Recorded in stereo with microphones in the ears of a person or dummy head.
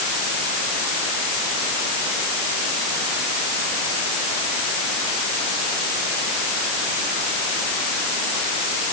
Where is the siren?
I don't hear a siren.